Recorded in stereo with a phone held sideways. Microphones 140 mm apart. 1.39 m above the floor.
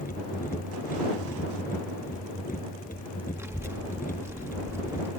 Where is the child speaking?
20° right (ahead or behind).